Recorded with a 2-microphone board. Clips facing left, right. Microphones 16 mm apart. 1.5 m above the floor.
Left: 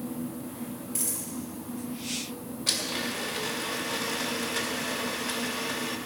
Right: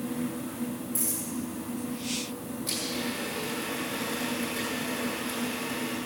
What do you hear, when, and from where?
0.9 s a dropped coin: 25° left (ahead or behind), 6 m
2.7 s a blender: 55° left (ahead or behind), 2.0 m